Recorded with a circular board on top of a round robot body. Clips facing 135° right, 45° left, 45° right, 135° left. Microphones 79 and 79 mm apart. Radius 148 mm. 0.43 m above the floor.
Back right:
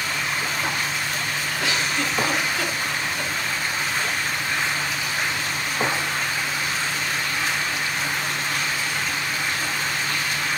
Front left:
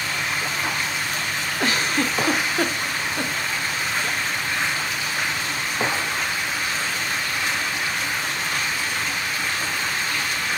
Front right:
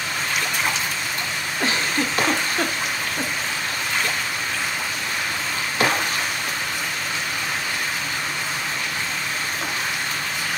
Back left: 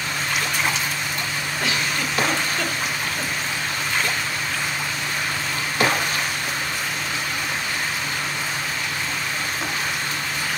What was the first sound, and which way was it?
A giggle, 5° left.